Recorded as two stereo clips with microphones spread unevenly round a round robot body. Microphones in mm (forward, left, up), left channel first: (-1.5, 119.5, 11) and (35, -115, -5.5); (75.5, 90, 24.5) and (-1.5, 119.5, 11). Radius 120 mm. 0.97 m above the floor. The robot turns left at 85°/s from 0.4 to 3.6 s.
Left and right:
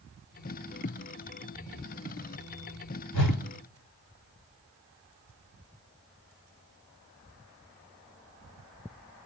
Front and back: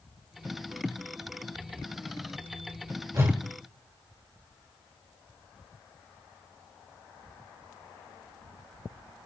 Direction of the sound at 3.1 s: 105° left.